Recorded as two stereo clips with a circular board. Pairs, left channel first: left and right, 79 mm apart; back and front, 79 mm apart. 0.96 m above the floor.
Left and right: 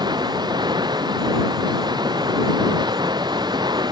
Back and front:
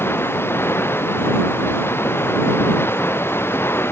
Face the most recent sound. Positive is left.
turn(degrees=-115)